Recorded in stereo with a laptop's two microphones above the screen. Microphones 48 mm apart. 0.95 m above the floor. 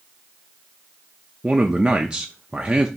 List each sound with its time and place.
1.4 s a man speaking: 15° right (ahead or behind), 0.7 m